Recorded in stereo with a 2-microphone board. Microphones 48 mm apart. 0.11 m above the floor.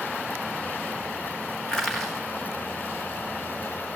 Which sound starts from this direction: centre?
Crushing, at 1.7 s.